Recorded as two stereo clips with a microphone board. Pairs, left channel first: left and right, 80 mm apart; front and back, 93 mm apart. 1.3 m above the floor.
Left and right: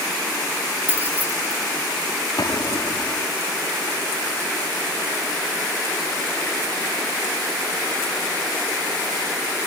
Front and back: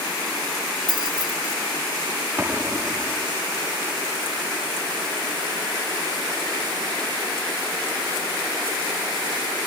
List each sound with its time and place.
0.9 s keys jangling: 155° right
2.4 s an explosion: 115° left